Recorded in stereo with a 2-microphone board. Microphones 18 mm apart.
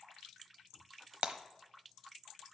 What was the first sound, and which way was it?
Breaking glass, 60° right (ahead or behind).